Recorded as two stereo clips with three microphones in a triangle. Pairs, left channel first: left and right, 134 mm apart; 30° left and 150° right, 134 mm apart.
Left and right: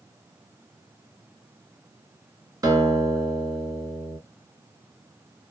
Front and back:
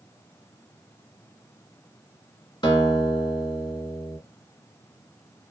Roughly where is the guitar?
Ahead right.